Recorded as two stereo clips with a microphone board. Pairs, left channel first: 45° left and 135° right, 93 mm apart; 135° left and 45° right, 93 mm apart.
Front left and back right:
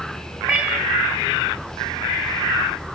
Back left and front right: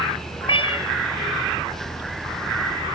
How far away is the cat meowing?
About 3.5 m.